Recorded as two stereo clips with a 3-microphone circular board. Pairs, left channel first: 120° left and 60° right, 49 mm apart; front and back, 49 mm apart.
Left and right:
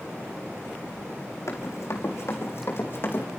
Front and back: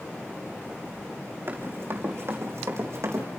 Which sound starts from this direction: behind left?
Running footsteps, at 1.5 s.